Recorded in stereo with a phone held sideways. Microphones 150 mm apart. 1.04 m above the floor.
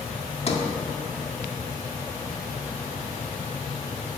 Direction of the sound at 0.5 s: 45° left (ahead or behind).